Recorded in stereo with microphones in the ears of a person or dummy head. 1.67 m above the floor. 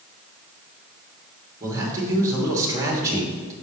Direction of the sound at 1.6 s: 20° right (ahead or behind).